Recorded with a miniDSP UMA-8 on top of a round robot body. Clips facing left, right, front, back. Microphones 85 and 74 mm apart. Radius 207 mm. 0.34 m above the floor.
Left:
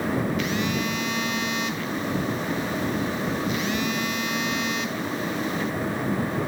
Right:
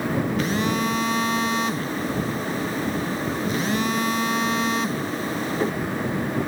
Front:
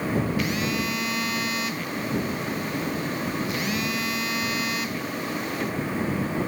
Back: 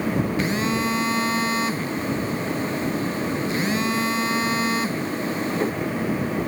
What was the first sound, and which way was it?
A phone buzzing, 130° right.